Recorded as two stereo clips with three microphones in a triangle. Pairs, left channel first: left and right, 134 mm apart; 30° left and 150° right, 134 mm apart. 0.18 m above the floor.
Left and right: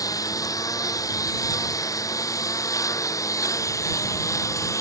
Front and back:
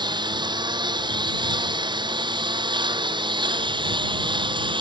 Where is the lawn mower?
155° left.